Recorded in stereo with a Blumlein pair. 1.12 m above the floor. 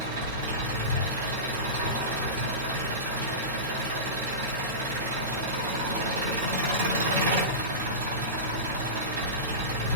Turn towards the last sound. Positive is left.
turn(degrees=-50)